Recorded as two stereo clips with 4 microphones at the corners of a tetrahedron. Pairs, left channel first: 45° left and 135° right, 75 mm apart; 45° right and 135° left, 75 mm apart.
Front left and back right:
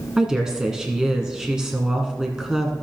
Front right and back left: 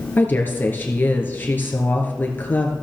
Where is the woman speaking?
65° right, 1.7 m.